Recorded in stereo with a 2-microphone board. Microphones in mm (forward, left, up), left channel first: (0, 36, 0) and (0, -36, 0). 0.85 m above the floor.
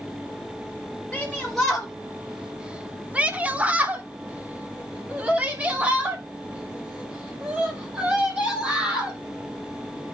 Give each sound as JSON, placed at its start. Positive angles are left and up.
{"t": 1.1, "sound": "a shout", "side_deg": 5, "distance_m": 1.3}